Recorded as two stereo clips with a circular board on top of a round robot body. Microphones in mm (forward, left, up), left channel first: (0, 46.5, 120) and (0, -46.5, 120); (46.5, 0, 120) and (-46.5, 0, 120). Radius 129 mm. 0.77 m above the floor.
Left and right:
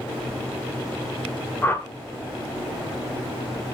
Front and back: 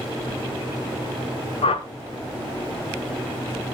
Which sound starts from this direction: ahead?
A whoosh, at 1.6 s.